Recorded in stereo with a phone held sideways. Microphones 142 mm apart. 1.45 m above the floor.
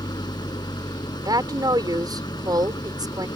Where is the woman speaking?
30° right (ahead or behind).